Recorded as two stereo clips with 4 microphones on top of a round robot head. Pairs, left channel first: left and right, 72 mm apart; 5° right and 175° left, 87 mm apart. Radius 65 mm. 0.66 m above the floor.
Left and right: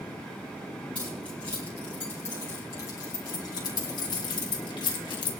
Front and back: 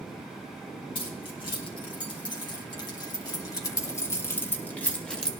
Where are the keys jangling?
10° left, 3 m; by 5.3 s 75° left, 1.9 m.